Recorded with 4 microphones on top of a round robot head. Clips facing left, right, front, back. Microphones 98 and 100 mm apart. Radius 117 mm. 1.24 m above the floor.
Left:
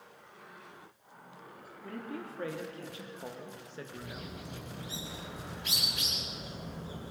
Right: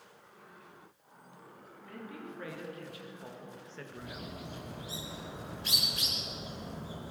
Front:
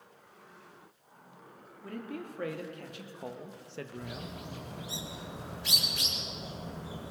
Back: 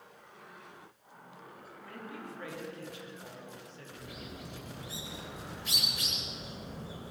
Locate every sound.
1.8 s a man speaking: 35° left, 3.5 m; by 4.3 s 5° right, 1.6 m
4.0 s a bird: 30° right, 5.5 m